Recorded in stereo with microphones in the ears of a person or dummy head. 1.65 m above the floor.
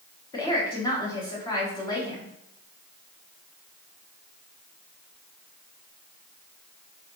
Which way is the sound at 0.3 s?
20° left (ahead or behind).